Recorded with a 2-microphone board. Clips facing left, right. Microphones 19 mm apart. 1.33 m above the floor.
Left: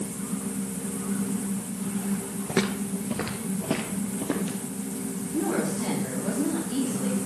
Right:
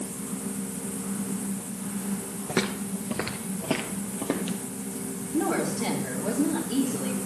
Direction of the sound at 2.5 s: Centre (ahead or behind).